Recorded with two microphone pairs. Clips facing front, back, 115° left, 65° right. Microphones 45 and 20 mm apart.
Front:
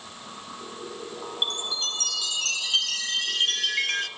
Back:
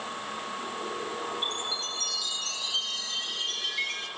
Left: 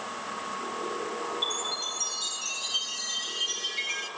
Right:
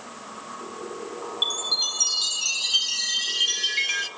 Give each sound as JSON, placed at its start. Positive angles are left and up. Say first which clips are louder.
{"t": 1.4, "sound": "a chime", "louder": "front 3 dB, right 10 dB", "azimuth_deg": -20, "distance_m": 1.7}